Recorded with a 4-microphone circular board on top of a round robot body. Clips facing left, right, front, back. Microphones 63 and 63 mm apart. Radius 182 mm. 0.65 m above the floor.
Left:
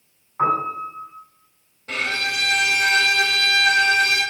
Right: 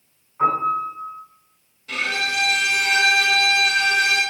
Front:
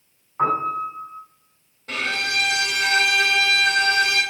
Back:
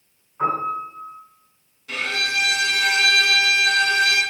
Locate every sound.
0.4 s a piano: 40° left, 7.5 m
1.9 s a violin: 45° left, 5.5 m